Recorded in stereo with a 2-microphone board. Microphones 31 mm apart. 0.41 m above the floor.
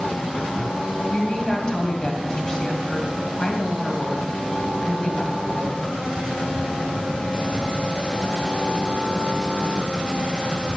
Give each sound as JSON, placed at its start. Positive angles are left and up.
{"t": 1.1, "sound": "a woman speaking", "side_deg": 25, "distance_m": 2.0}